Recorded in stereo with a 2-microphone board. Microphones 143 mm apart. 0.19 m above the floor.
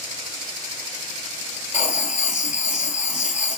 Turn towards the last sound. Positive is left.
turn(degrees=65)  # may be behind; listen again after turning